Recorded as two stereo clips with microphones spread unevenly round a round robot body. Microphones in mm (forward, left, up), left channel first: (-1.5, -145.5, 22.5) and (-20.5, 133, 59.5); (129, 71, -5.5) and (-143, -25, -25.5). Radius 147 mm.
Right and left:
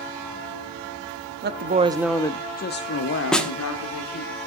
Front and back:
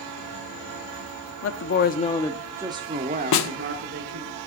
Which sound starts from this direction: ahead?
A snare drum, at 3.3 s.